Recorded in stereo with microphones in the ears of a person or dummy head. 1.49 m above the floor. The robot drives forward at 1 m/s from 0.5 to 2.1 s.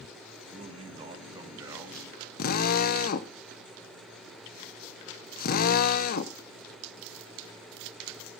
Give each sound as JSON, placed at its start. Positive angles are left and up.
{"t": 0.5, "sound": "a man speaking", "side_deg": -40, "distance_m": 1.2}
{"t": 2.4, "sound": "a drill", "side_deg": 55, "distance_m": 0.8}